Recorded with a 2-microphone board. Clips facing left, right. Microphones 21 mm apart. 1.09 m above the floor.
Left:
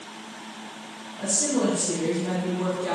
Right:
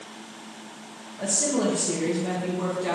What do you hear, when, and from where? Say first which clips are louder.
1.2 s a woman speaking: even; 30° right (ahead or behind), 0.8 m